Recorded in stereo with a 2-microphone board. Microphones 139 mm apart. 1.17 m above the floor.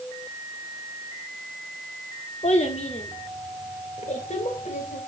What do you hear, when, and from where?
2.4 s a child speaking: 50° left (ahead or behind), 1.7 m; by 5.0 s 65° left (ahead or behind), 4 m